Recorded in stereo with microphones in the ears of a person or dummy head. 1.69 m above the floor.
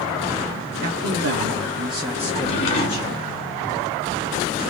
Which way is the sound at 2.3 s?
40° left (ahead or behind).